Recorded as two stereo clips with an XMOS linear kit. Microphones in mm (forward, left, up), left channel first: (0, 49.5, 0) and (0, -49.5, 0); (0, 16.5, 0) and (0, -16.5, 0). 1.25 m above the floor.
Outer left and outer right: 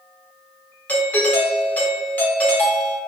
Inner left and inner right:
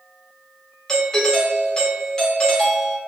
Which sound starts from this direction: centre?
A doorbell, at 0.9 s.